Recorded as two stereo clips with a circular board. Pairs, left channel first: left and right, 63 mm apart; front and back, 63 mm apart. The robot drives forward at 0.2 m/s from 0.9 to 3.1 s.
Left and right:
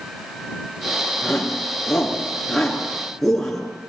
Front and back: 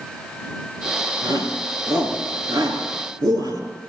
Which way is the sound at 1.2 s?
175° left.